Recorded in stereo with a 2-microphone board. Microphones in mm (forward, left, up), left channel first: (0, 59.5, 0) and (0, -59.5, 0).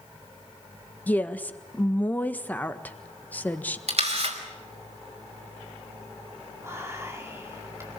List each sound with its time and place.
1.1 s a woman speaking: 15° left (ahead or behind), 1.5 m
3.9 s a camera shutter: 65° right (ahead or behind), 5 m
6.6 s whispering: 20° right (ahead or behind), 4 m